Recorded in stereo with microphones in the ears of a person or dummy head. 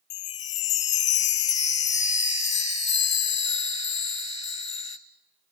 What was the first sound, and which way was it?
A chime, 35° left (ahead or behind).